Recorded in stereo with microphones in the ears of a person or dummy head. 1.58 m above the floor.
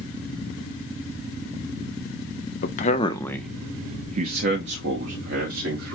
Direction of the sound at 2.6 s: 45° left (ahead or behind).